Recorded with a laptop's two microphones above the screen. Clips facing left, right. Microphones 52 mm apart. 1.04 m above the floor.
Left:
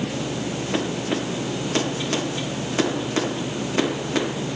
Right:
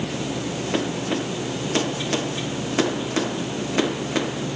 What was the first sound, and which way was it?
Only background noise.